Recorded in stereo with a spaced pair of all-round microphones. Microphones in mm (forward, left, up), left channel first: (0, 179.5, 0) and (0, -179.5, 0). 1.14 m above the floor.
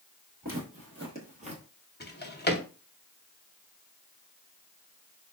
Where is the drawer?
30° left (ahead or behind), 0.7 m.